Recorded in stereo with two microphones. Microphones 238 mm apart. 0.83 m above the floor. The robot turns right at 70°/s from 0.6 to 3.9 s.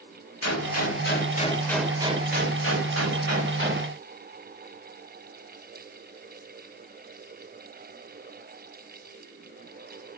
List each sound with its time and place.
0.4 s a gunshot: 95° left, 1.6 m; by 3.9 s 35° right, 1.6 m